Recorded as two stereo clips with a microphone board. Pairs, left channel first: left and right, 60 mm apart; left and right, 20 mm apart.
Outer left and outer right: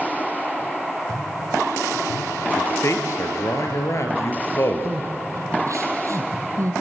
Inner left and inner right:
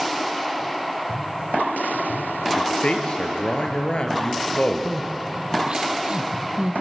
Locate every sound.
2.6 s a man speaking: 55° left (ahead or behind), 3 m
4.8 s crying: 55° right (ahead or behind), 2.5 m